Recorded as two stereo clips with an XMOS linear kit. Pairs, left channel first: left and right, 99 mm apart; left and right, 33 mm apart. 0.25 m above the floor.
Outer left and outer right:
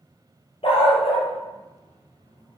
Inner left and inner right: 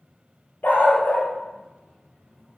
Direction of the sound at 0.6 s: 70° left (ahead or behind).